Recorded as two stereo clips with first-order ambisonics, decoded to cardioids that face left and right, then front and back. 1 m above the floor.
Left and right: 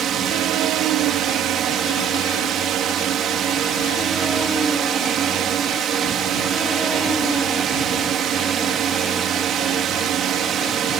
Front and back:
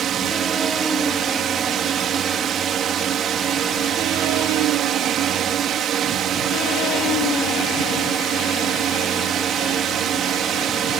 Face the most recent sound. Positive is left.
turn(degrees=-135)